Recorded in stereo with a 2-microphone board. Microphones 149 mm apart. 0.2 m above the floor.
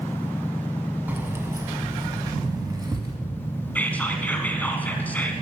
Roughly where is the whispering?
Centre.